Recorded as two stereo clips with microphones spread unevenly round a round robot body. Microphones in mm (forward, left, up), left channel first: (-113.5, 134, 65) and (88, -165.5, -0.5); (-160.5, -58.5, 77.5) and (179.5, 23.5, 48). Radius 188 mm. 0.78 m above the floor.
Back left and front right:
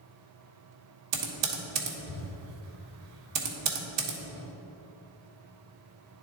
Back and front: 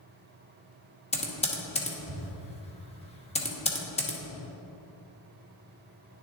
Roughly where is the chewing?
I don't hear chewing.